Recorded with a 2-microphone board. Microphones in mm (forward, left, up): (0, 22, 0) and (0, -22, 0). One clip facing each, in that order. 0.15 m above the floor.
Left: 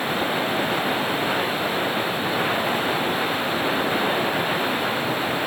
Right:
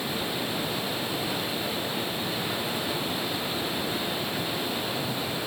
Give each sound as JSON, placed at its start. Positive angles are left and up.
{"t": 0.0, "sound": "running water", "side_deg": 50}